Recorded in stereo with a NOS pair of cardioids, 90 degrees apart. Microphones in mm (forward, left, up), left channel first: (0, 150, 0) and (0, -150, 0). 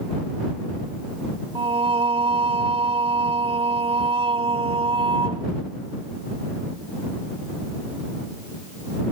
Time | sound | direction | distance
1.6 | singing | 20° right | ?